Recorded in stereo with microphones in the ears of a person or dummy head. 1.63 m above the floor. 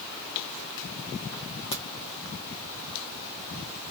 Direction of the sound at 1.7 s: 30° left (ahead or behind).